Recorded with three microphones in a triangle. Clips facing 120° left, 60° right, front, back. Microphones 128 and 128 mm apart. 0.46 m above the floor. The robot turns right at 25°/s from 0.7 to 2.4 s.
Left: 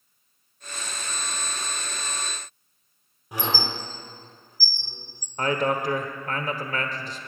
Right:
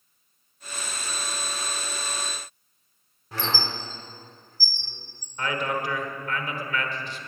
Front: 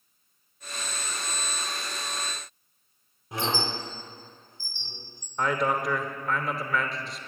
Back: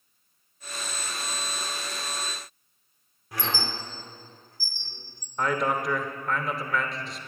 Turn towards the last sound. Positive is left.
turn(degrees=90)